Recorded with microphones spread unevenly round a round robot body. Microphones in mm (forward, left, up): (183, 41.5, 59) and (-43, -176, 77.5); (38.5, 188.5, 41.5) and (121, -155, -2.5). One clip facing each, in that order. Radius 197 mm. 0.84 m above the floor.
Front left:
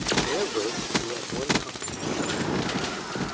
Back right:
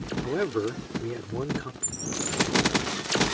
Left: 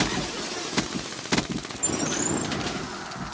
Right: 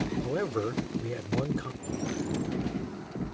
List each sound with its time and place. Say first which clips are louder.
0.2 s a man speaking: even, right 5 dB; 80° right
1.8 s a bird: front left 5 dB, left 6 dB; 155° left